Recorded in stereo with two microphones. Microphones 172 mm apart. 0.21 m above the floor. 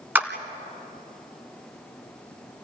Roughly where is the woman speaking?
I don't hear a woman speaking.